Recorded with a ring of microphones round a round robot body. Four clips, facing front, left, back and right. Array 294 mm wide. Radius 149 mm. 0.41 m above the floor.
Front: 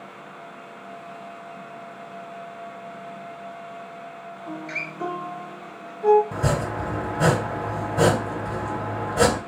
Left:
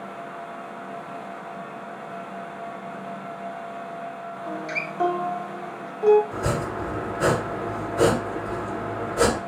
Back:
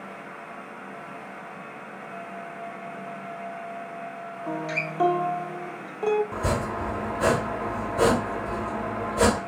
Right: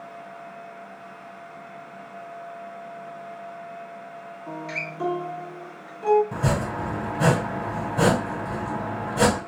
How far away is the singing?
No singing in this recording.